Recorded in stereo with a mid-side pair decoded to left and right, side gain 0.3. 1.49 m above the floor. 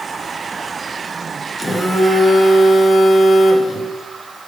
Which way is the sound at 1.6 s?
25° left.